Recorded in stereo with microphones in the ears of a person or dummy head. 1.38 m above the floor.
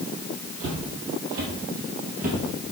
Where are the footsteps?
55° right (ahead or behind), 2.5 m; by 2.4 s 40° right (ahead or behind), 2 m.